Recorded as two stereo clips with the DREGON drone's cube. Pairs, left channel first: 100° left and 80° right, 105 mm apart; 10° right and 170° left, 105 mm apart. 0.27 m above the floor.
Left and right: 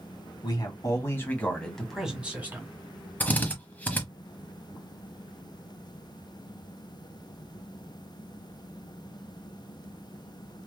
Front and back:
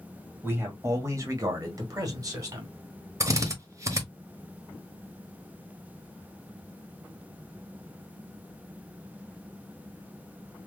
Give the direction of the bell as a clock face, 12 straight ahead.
I don't hear a bell.